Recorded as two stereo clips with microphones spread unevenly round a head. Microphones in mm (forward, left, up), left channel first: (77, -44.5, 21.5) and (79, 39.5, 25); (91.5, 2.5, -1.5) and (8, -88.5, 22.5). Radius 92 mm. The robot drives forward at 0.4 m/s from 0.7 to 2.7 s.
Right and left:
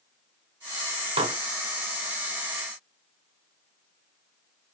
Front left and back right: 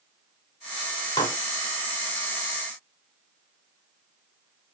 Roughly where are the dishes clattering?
Behind left.